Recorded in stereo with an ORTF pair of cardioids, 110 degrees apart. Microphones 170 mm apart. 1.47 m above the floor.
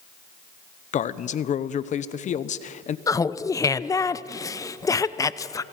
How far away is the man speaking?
About 1.0 m.